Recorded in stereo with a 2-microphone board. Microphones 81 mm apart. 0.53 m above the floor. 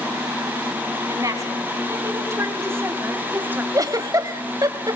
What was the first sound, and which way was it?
A woman speaking, 40° right (ahead or behind).